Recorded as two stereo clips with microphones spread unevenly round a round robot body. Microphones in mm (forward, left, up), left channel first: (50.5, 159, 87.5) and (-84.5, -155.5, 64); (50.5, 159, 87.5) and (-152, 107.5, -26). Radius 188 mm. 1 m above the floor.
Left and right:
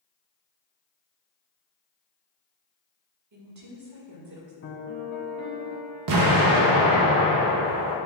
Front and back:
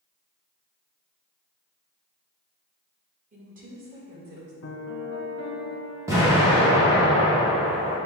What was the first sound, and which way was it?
A woman speaking, 140° right.